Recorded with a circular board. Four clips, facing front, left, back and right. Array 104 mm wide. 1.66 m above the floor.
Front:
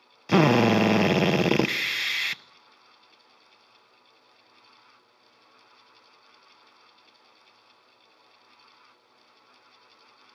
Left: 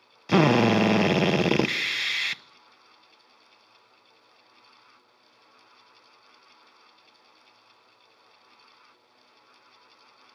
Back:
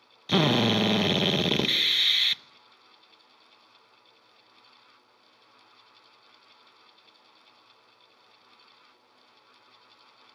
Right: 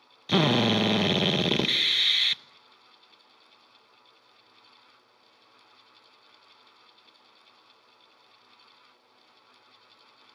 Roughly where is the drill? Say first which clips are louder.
Left 4 dB, front 5 dB; ahead left.